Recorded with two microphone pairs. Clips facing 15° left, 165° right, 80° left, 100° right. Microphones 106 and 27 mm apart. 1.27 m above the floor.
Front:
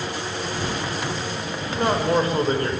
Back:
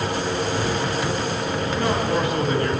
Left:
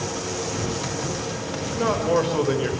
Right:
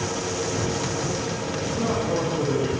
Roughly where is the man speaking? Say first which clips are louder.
Front 3 dB, left 4 dB; ahead left.